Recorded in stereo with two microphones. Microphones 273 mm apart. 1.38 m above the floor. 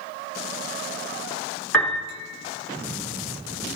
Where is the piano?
5° left (ahead or behind), 3 m.